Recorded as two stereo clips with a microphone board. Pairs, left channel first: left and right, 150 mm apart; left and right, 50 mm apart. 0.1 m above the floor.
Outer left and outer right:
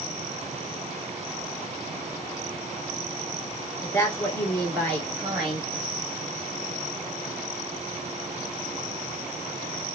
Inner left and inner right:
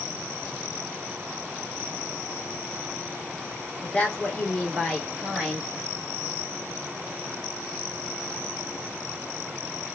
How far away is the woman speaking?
About 1.1 m.